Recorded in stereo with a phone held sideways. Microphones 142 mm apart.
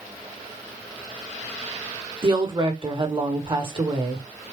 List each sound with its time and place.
2.2 s a woman speaking: 35° right (ahead or behind), 1.4 m